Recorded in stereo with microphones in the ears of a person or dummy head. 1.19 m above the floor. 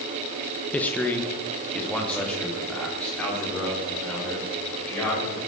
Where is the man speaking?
10° left (ahead or behind), 0.8 m; by 5.4 s 5° left (ahead or behind), 5.5 m.